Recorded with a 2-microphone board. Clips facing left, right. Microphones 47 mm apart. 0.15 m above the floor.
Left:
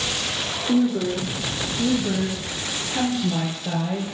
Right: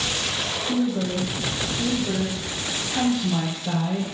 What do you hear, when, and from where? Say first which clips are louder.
0.7 s a woman speaking: left 4 dB; 60° left (ahead or behind), 4 m; by 4.0 s 15° left (ahead or behind), 2.0 m